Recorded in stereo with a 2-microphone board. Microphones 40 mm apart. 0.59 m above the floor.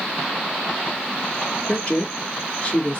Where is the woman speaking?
30° left (ahead or behind), 1.3 m.